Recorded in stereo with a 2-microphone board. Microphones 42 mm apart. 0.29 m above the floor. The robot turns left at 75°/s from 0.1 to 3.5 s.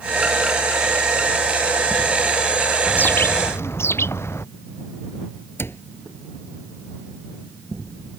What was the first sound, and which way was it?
A bird, 150° left.